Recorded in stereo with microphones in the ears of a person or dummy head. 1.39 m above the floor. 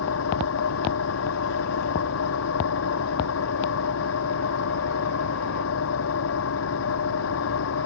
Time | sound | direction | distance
0.0 | an engine running | 80° left | ?